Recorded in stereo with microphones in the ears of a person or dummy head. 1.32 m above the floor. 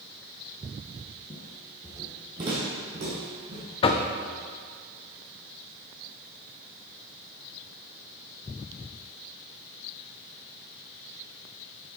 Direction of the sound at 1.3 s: 15° left (ahead or behind).